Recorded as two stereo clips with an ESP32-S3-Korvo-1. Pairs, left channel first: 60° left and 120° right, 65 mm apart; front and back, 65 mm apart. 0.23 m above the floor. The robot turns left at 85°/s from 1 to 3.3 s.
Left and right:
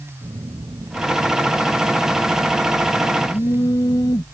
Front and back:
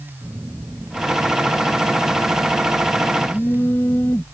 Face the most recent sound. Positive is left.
turn(degrees=60)